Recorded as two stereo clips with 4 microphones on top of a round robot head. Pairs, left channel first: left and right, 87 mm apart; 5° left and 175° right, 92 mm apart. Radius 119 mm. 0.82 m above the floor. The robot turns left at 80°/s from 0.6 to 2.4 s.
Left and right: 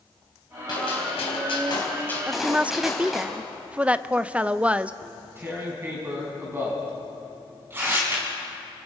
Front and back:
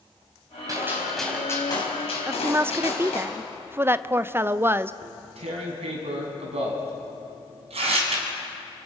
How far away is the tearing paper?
About 3 m.